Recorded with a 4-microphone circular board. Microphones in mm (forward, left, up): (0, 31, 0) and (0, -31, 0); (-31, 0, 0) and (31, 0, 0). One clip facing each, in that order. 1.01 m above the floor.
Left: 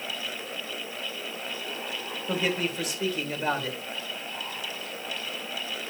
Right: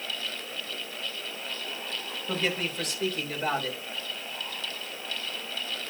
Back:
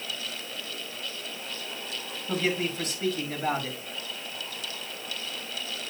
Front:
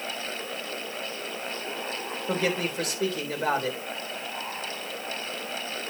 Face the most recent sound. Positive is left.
turn(degrees=10)